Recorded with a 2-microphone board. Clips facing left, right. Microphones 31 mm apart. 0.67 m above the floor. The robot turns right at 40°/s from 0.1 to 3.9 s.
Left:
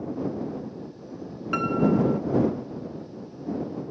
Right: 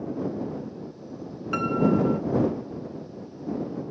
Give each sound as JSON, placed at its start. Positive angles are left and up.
{"t": 1.5, "sound": "a piano", "side_deg": 5}